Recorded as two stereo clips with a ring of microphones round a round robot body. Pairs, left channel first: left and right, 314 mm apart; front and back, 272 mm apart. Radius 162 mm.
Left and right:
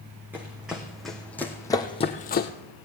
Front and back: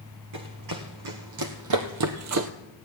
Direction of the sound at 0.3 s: 175° right.